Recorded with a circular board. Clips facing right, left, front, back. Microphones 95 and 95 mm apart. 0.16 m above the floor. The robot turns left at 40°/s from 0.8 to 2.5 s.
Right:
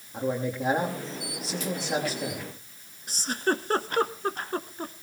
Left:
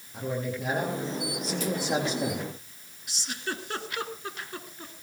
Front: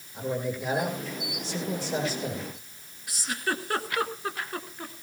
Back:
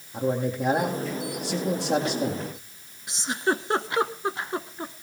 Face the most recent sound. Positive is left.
turn(degrees=-120)